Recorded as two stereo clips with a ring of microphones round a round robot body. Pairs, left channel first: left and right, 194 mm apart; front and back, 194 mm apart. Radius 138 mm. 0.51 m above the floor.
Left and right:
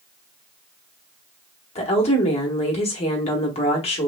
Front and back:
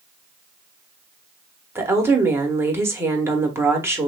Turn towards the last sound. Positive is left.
turn(degrees=115)